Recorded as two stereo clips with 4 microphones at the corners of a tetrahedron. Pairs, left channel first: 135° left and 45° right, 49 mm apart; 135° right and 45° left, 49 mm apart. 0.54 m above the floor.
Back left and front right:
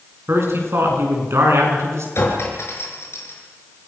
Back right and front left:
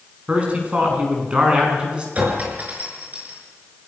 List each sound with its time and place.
0.3 s a man speaking: 15° right, 6.5 m; by 2.0 s 25° right, 6.5 m
2.1 s a clink: 105° left, 6.5 m